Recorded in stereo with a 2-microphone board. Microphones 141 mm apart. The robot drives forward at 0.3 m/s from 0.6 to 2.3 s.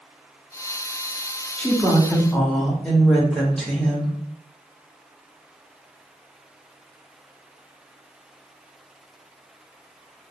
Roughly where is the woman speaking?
Centre.